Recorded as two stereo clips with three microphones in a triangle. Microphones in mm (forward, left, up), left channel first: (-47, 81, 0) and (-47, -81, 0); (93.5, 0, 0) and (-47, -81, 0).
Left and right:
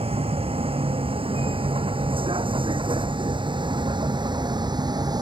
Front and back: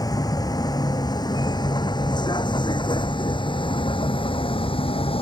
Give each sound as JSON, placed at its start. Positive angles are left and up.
{"t": 0.0, "sound": "a vehicle", "azimuth_deg": -35}